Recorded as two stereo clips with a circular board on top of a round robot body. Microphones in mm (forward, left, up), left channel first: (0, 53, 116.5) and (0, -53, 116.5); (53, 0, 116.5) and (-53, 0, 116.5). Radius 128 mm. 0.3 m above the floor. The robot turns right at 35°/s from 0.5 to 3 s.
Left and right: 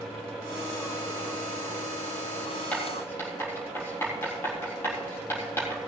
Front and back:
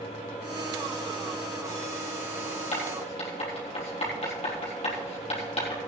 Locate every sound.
2.7 s writing: 15° left, 4 m; by 5.8 s 25° left, 4 m